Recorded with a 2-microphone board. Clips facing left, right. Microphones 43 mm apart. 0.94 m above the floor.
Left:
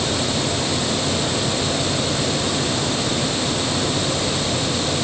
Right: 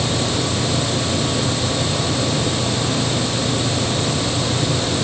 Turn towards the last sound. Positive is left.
No sound to turn to.